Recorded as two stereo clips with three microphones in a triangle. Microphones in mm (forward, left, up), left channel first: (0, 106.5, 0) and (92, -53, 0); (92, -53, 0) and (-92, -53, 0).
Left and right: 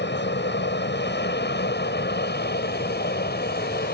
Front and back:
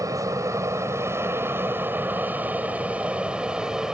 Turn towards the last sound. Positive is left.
turn(degrees=95)